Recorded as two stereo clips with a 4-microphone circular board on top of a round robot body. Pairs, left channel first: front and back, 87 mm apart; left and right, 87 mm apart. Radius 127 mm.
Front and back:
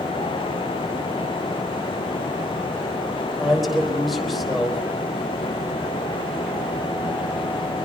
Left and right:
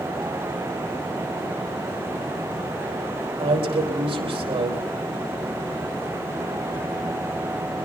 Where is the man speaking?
90° right, 4 m.